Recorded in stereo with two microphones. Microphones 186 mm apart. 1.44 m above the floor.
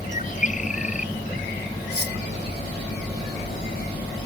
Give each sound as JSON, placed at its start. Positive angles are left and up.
{"t": 0.1, "sound": "a bird", "side_deg": 45}
{"t": 1.9, "sound": "cutlery clinking", "side_deg": 65}